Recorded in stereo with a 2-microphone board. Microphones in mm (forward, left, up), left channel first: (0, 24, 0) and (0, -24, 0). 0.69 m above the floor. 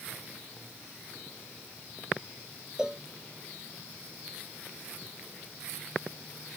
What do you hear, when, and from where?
2.8 s a cowbell: 15° right (ahead or behind)